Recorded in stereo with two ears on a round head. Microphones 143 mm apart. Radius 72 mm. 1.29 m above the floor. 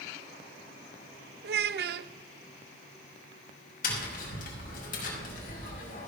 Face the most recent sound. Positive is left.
turn(degrees=60)  # may be behind; listen again after turning